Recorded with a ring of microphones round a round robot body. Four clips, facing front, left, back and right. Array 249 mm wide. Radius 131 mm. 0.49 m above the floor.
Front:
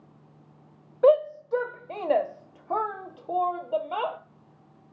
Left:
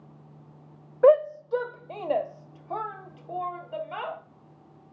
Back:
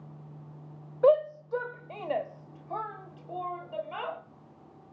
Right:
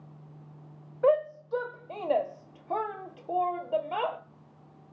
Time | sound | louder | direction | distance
1.0 | a shout | left 6 dB, front 3 dB | 70° left | 1.0 m